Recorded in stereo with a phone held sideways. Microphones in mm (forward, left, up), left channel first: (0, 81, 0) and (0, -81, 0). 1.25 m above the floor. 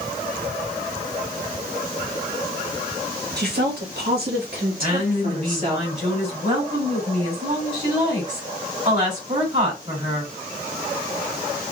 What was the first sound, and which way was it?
A woman speaking, 90° right.